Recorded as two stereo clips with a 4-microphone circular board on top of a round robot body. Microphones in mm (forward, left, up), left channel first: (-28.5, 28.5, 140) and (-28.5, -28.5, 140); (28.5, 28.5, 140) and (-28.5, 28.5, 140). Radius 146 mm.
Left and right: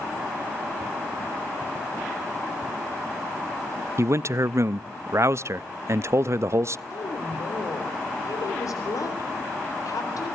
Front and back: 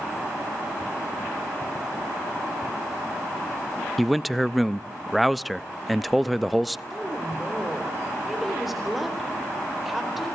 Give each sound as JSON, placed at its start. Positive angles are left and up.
{"t": 4.0, "sound": "a man speaking", "azimuth_deg": -90, "distance_m": 0.7}
{"t": 6.9, "sound": "a woman speaking", "azimuth_deg": 90, "distance_m": 4.0}